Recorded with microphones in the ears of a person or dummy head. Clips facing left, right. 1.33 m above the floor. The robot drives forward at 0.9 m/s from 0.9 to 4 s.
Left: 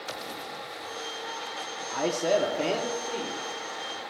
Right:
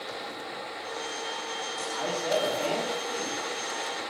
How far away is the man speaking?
About 0.8 m.